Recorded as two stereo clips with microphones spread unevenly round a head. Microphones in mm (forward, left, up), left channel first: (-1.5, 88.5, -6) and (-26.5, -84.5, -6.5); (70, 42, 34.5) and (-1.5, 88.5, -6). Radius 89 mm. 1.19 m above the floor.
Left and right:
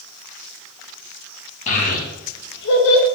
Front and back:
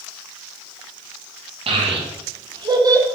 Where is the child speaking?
130° left, 1.1 m; by 3.1 s 85° left, 0.8 m.